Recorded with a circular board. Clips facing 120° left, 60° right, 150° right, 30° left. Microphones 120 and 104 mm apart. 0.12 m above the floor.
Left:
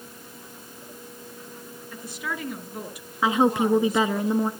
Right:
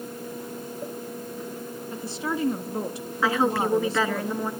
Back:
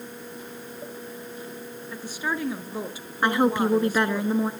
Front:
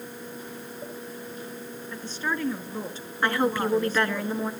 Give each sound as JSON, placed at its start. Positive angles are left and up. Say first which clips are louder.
{"t": 1.9, "sound": "a woman speaking", "louder": "right 4 dB, back 1 dB", "azimuth_deg": -80, "distance_m": 1.6}
{"t": 3.2, "sound": "a woman speaking", "louder": "left 2 dB, back 3 dB", "azimuth_deg": 165, "distance_m": 1.2}